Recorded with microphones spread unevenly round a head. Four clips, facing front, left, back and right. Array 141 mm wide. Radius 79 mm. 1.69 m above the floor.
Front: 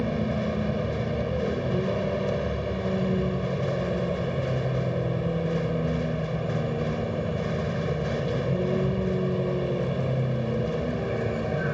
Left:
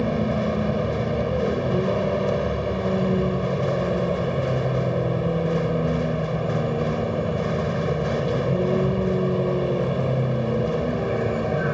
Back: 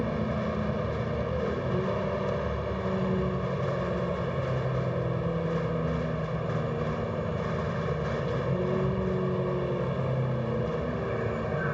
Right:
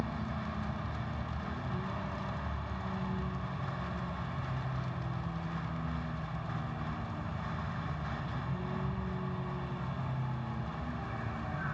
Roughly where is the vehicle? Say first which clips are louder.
Left 15 dB, front 3 dB; left.